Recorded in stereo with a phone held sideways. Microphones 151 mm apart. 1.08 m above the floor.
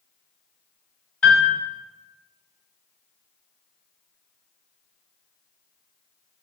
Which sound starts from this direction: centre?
A piano, at 1.2 s.